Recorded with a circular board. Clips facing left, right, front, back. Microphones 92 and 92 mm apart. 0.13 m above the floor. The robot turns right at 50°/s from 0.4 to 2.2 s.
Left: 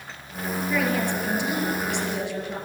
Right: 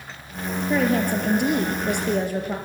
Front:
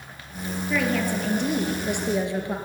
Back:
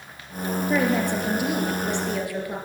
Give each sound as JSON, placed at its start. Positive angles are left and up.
{"t": 0.7, "sound": "a woman speaking", "azimuth_deg": -135, "distance_m": 3.0}